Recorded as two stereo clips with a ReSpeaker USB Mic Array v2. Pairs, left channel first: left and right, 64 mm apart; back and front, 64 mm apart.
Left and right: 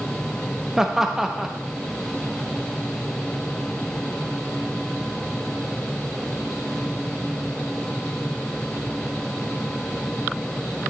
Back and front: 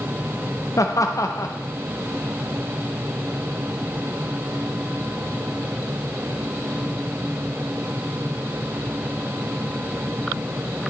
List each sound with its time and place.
0.8 s laughter: 170° right, 0.7 m